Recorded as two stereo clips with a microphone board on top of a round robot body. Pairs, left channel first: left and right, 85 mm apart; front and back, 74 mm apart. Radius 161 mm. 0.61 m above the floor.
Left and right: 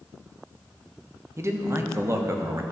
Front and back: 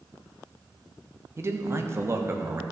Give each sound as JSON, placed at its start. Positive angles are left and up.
{"t": 1.4, "sound": "a man speaking", "azimuth_deg": -140, "distance_m": 1.2}